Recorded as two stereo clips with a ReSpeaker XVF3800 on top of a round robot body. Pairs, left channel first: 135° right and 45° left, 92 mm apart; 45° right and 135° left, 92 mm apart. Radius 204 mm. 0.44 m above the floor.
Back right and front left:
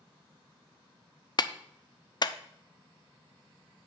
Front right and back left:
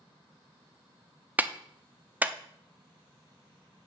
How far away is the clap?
About 0.7 m.